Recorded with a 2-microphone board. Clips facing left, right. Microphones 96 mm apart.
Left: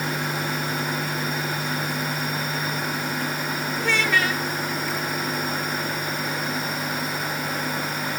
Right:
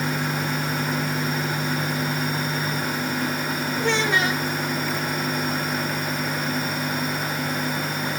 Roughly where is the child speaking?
Right.